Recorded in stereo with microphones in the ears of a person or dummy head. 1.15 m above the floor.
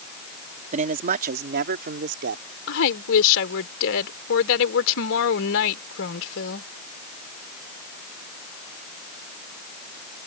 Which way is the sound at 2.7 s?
65° left (ahead or behind).